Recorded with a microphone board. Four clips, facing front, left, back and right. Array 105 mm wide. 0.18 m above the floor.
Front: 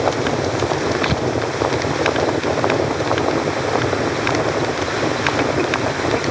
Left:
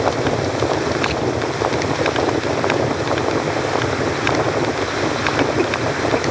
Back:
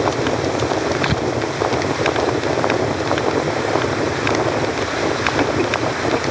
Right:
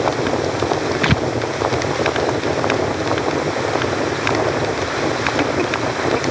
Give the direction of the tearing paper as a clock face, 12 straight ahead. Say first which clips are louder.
Right 2 dB, even; 3 o'clock.